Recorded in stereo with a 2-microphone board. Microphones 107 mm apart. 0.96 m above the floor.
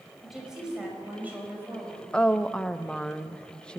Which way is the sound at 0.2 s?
5° right (ahead or behind).